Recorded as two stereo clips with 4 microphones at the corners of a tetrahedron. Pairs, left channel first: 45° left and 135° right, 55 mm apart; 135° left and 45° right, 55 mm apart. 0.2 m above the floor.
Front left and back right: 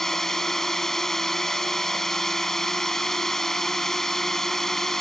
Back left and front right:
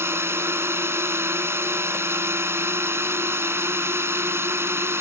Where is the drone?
35° right.